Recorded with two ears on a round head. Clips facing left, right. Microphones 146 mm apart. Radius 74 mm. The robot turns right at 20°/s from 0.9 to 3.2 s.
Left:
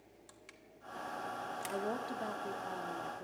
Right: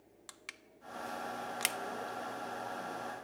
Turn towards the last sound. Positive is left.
turn(degrees=130)